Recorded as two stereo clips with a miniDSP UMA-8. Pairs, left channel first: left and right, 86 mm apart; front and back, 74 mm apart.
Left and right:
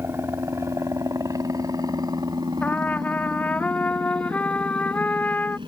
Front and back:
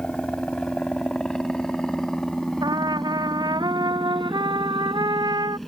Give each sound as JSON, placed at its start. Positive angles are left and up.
{"t": 0.0, "sound": "a helicopter", "azimuth_deg": -65}
{"t": 2.6, "sound": "a trumpet", "azimuth_deg": 165}